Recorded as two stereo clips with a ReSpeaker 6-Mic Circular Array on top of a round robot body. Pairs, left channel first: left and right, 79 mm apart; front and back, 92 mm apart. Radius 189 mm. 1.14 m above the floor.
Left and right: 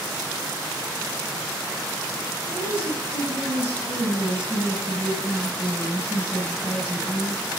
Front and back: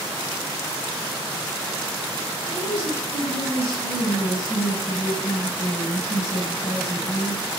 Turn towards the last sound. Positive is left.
turn(degrees=30)